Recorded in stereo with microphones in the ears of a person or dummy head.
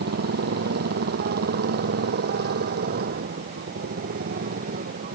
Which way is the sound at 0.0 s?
50° right (ahead or behind).